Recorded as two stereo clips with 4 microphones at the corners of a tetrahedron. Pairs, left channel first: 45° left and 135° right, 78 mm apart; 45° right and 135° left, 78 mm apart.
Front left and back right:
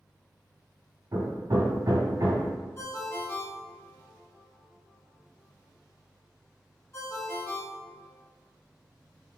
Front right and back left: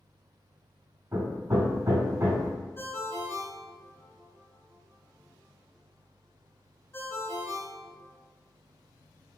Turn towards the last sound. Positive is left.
turn(degrees=0)